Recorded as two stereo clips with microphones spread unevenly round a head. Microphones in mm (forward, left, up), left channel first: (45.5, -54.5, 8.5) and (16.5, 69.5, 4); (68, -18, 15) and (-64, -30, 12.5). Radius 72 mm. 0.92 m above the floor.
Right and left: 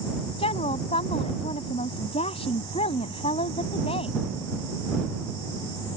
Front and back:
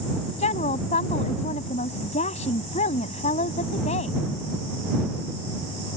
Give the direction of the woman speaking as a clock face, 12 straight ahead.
1 o'clock.